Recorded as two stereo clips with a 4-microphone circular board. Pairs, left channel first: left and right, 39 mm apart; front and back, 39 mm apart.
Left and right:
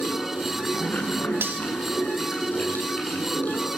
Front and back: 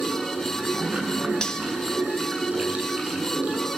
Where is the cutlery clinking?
70° right, 4 m.